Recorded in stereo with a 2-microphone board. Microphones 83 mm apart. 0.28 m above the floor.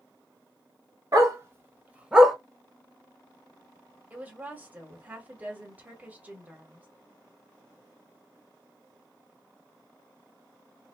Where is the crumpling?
No crumpling in this recording.